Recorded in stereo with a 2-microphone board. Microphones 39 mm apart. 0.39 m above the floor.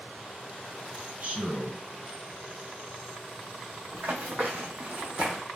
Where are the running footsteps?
65° right (ahead or behind), 1.2 m; by 5.4 s 25° right (ahead or behind), 1.0 m.